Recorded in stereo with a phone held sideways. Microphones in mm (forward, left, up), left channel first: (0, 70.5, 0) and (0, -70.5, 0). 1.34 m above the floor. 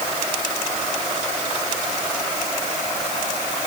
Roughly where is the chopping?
No chopping in this recording.